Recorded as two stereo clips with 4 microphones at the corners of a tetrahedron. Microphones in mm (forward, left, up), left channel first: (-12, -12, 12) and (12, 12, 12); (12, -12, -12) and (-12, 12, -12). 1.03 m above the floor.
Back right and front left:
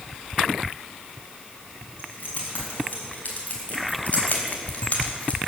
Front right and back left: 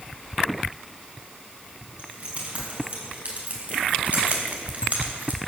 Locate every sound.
2.0 s keys jangling: 175° right, 6 m; by 5.4 s 175° left, 2.5 m